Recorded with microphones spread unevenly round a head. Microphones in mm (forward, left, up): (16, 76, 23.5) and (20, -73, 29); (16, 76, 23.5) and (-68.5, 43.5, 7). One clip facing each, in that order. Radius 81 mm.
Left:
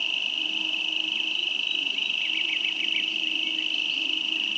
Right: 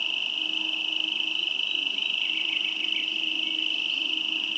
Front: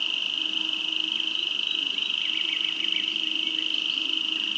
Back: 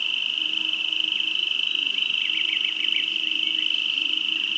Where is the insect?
15° left, 1.0 m.